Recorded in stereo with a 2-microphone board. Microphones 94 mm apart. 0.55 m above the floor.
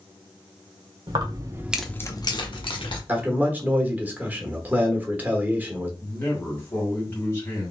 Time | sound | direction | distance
1.1 | keys jangling | 55° right (ahead or behind) | 1.1 m
3.1 | a man speaking | 20° right (ahead or behind) | 1.1 m
6.0 | a man speaking | 25° left (ahead or behind) | 2.5 m